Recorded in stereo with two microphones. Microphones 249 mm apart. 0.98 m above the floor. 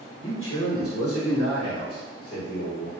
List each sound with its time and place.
0.2 s a man speaking: 50° left (ahead or behind), 1.3 m; by 2.9 s 60° left (ahead or behind), 1.8 m